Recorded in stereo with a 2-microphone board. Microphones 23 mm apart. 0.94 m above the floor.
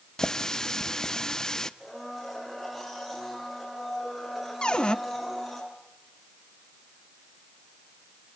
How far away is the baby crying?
I don't hear a baby crying.